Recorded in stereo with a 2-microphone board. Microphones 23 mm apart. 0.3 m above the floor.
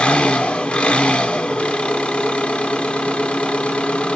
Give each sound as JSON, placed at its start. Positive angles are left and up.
{"t": 0.0, "sound": "an engine running", "side_deg": 75, "distance_m": 0.8}